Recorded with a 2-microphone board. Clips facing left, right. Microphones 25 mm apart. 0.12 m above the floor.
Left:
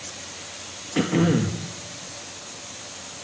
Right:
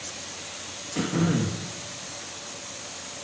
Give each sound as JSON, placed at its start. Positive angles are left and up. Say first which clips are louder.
{"t": 0.9, "sound": "throat clearing", "louder": "left 4 dB", "side_deg": 40, "distance_m": 1.5}